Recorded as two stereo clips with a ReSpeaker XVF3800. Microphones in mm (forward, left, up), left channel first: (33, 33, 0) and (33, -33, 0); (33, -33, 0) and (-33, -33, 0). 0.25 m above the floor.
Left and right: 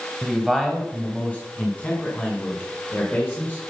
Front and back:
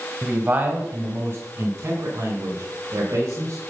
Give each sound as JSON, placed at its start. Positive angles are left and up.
{"t": 0.2, "sound": "a man speaking", "azimuth_deg": -170, "distance_m": 1.3}